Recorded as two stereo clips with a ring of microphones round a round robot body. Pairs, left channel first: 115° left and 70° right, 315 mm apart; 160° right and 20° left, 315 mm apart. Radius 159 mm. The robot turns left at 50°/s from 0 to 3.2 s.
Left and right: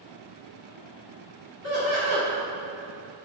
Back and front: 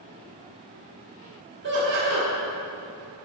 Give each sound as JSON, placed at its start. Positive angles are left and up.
{"t": 1.6, "sound": "laughter", "azimuth_deg": 80, "distance_m": 1.4}